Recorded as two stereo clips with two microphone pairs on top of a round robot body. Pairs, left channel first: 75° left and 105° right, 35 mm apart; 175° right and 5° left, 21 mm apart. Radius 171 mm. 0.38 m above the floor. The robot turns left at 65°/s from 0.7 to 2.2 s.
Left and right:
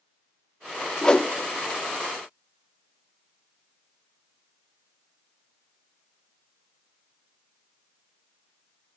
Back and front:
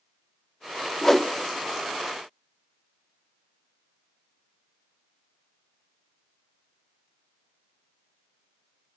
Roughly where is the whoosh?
Behind left.